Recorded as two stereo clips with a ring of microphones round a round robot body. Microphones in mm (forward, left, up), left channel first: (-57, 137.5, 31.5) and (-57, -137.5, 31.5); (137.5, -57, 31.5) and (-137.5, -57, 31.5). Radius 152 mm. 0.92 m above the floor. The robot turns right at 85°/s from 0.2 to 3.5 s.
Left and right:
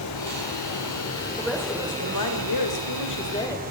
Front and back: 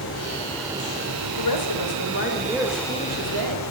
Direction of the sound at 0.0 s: 55° left.